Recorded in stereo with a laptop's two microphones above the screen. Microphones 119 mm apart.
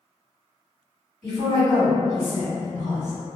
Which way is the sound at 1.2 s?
80° right.